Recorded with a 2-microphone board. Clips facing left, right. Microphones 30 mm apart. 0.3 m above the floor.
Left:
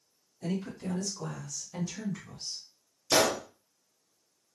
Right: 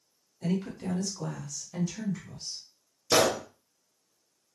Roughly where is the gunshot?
Centre.